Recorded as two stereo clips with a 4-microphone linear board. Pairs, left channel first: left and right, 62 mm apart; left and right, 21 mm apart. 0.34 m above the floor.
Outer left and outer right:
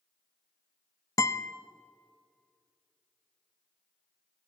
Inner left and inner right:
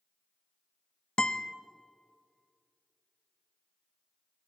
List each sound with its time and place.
1.2 s a guitar: 55° left (ahead or behind), 0.6 m